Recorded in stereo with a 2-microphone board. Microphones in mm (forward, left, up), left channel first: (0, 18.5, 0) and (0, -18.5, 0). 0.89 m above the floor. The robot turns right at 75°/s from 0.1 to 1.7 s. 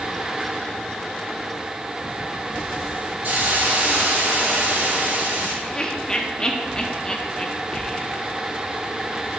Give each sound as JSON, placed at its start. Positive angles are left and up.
{"t": 3.2, "sound": "a hiss", "side_deg": -75, "distance_m": 3.0}
{"t": 5.6, "sound": "laughter", "side_deg": 20, "distance_m": 0.6}